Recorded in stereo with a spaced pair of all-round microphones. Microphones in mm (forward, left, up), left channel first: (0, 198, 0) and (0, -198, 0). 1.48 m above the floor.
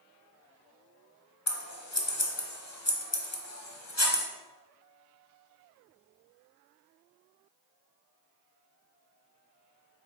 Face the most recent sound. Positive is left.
turn(degrees=45)  # may be behind; listen again after turning